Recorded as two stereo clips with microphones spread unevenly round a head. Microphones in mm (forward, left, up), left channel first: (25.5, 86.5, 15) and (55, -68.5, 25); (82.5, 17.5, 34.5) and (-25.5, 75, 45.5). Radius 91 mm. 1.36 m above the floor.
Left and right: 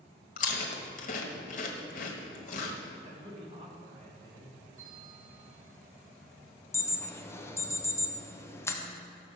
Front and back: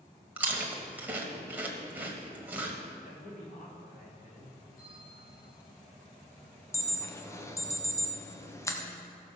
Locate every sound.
0.4 s chewing: 85° left, 1.5 m
3.0 s a man speaking: 25° right, 3.5 m
4.8 s a bell: 40° right, 4.5 m
6.7 s an alarm: 30° left, 1.4 m